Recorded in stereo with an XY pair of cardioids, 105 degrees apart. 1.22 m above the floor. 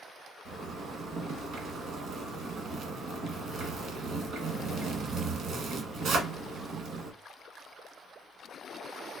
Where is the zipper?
65° right, 1.6 m.